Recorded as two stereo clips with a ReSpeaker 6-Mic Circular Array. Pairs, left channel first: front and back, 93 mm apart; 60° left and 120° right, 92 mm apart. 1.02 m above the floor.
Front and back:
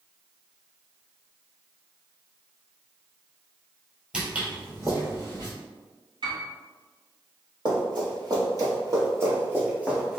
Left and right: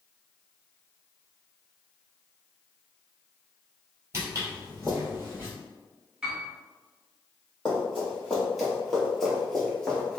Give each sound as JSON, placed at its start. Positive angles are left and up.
{"t": 4.1, "sound": "footsteps", "azimuth_deg": -110, "distance_m": 1.1}
{"t": 6.2, "sound": "a piano", "azimuth_deg": 160, "distance_m": 1.0}
{"t": 7.7, "sound": "running footsteps", "azimuth_deg": 155, "distance_m": 1.9}